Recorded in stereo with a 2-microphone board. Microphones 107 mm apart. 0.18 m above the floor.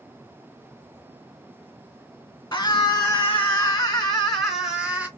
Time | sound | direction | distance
2.5 | a scream | 30° left (ahead or behind) | 1.6 m